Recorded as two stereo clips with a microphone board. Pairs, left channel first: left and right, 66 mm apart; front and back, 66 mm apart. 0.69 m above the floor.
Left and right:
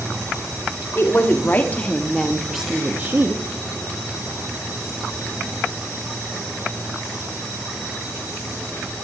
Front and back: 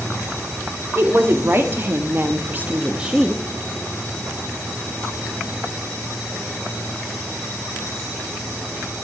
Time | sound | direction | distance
0.9 | a woman speaking | 135° left | 2 m